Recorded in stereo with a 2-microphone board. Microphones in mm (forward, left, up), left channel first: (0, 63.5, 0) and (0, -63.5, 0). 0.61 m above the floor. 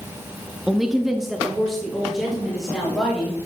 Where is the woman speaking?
Centre (ahead or behind), 0.6 m.